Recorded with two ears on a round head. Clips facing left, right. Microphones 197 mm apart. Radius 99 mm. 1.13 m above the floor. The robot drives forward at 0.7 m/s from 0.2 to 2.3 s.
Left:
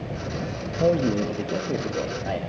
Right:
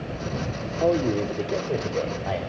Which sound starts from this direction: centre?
A man speaking, at 0.8 s.